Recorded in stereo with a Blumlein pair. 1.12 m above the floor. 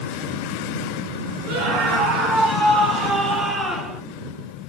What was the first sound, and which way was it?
A scream, 45° right.